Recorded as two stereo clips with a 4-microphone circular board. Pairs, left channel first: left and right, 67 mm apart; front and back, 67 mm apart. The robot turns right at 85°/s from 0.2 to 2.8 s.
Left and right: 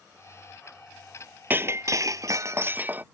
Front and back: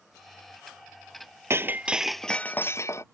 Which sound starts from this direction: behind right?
Breaking glass, at 1.5 s.